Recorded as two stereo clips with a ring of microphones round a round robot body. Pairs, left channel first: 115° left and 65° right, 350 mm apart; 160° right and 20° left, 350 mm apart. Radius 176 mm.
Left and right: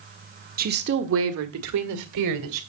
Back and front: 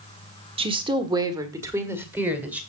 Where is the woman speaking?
35° right, 1.1 m; by 2.6 s 65° right, 1.8 m.